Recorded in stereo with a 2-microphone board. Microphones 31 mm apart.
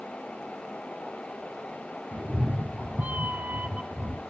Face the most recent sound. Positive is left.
turn(degrees=-65)  # may be behind; listen again after turning